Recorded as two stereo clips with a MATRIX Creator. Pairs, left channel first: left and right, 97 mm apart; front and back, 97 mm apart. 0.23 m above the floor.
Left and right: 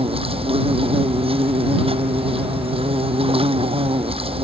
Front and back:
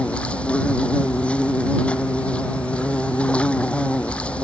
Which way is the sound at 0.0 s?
80° right.